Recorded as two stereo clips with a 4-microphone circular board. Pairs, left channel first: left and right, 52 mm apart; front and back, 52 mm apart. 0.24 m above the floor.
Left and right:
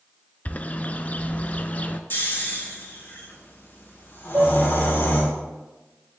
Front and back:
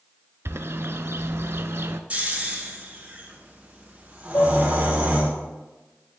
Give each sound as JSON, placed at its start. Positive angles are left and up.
{"t": 0.5, "sound": "a bird", "azimuth_deg": 150, "distance_m": 0.5}
{"t": 2.1, "sound": "snoring", "azimuth_deg": 120, "distance_m": 2.5}
{"t": 4.3, "sound": "dishes clattering", "azimuth_deg": -35, "distance_m": 3.5}